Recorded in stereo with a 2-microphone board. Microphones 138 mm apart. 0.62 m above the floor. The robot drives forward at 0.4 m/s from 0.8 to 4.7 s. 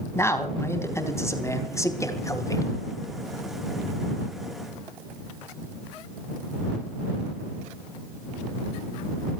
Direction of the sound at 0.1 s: 20° left (ahead or behind).